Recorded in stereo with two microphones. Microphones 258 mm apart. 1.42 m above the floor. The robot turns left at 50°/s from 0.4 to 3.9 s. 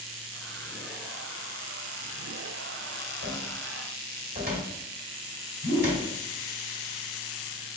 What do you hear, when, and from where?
3.2 s a cupboard door: 50° right (ahead or behind), 1.5 m; by 6.1 s 40° right (ahead or behind), 1.5 m
5.6 s a whoosh: 30° right (ahead or behind), 2 m